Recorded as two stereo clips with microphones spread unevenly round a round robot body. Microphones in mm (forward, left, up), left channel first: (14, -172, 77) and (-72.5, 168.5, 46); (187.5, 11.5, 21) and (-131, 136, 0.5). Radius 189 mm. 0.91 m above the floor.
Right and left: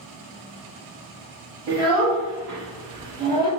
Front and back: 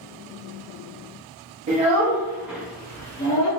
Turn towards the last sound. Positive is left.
turn(degrees=25)